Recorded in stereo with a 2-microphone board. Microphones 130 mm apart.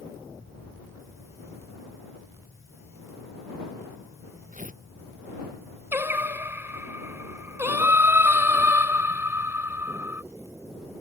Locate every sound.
4.5 s tearing paper: 85° right
5.9 s singing: 15° right (ahead or behind)